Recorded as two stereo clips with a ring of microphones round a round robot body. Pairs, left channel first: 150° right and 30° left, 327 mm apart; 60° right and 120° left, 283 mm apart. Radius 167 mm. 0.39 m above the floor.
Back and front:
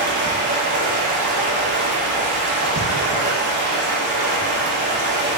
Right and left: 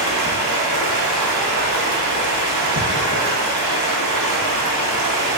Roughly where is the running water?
Left.